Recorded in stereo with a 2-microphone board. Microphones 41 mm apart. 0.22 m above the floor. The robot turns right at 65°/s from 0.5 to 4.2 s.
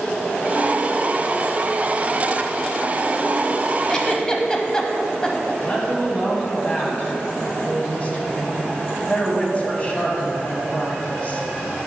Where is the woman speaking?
30° left (ahead or behind), 1.5 m.